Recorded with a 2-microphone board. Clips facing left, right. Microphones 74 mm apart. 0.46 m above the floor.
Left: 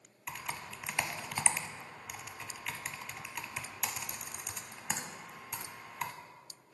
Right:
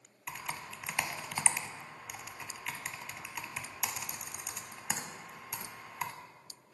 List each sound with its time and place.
0.3 s typing on a keyboard: 5° right (ahead or behind), 0.7 m